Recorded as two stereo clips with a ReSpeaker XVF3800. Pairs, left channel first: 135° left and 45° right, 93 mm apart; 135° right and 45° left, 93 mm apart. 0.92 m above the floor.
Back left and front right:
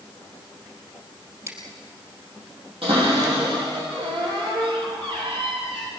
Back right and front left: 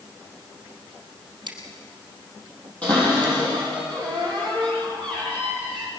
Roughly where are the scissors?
Ahead.